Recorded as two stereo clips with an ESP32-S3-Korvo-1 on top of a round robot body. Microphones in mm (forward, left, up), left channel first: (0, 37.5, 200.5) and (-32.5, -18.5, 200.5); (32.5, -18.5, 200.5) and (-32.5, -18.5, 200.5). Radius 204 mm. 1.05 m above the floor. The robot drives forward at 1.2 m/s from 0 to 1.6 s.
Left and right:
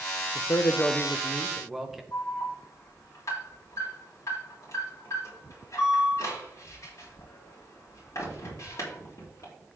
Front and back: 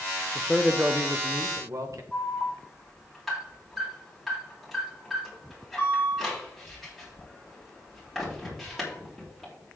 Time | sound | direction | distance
0.3 | a man speaking | 70° left | 0.8 m
2.1 | an alarm | 90° left | 5.5 m